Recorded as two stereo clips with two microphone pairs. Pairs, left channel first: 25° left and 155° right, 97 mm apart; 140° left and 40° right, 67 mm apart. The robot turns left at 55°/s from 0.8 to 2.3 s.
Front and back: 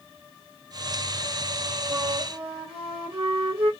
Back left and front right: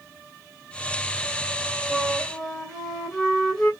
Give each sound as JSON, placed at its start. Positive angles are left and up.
{"t": 1.9, "sound": "a flute", "azimuth_deg": -115, "distance_m": 1.8}